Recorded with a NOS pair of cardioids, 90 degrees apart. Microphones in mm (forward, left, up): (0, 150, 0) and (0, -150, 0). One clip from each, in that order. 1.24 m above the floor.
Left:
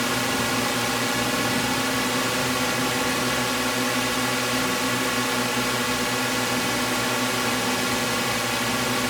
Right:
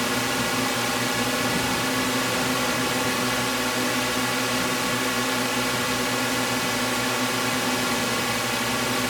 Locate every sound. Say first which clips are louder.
0.0 s a drone: left 1 dB; 5° left